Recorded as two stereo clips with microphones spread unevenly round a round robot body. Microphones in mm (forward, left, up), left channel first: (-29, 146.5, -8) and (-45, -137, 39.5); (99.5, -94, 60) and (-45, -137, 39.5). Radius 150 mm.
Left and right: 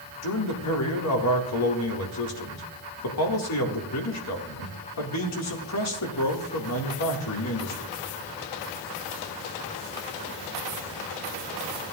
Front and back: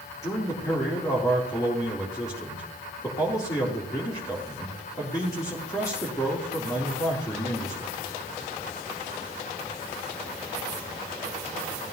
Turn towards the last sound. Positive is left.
turn(degrees=90)